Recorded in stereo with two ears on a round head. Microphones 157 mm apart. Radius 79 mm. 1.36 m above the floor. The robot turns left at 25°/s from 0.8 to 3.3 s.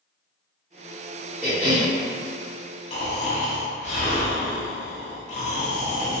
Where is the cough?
5° right (ahead or behind), 1.1 m; by 1.9 s 10° left (ahead or behind), 1.1 m.